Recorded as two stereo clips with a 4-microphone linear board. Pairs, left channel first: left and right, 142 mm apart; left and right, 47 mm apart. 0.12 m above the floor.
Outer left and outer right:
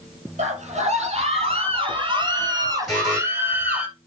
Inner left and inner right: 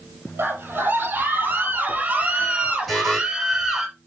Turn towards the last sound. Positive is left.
turn(degrees=0)  # may be behind; listen again after turning